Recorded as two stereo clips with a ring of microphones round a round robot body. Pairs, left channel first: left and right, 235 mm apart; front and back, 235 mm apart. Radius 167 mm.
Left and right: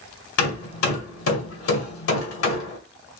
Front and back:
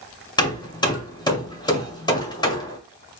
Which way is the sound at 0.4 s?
70° left.